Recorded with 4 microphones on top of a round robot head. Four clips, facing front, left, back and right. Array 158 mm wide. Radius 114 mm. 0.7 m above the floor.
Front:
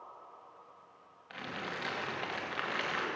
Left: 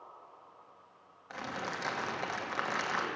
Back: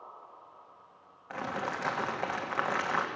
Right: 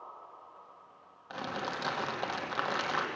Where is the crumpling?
160° right, 1.2 m.